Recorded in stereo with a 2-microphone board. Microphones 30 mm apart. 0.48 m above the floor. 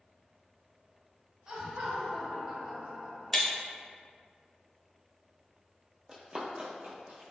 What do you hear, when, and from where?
1.5 s laughter: 20° right (ahead or behind), 0.7 m; by 3.6 s 50° right (ahead or behind), 1.3 m
3.3 s breaking glass: 10° left (ahead or behind), 0.5 m
6.1 s running footsteps: 20° right (ahead or behind), 0.6 m; by 7.2 s 60° right (ahead or behind), 0.9 m